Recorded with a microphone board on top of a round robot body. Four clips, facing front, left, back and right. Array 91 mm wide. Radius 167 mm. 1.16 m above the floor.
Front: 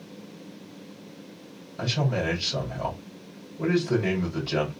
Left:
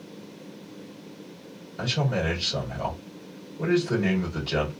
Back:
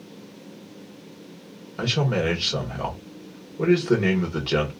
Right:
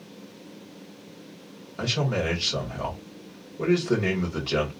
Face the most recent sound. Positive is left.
turn(degrees=-165)